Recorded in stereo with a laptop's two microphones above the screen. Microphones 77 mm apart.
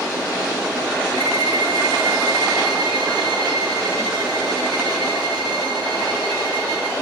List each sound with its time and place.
1.2 s a violin: 65° right (ahead or behind), 1.4 m